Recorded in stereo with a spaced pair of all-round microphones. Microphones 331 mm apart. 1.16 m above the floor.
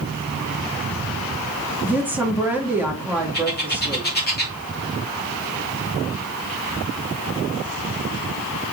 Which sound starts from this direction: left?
A bird, at 3.3 s.